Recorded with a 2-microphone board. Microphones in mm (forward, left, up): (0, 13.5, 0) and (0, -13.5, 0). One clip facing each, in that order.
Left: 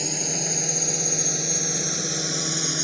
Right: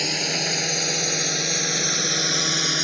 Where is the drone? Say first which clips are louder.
Right 6 dB; 55° right (ahead or behind); by 2.9 s 45° right (ahead or behind).